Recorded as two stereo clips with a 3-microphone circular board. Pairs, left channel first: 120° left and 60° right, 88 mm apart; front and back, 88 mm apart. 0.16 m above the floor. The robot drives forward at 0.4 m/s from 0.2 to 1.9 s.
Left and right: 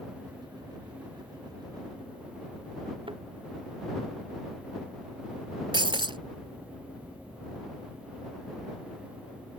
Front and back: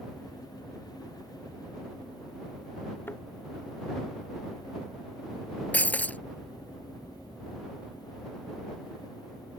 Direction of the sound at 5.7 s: 70° right.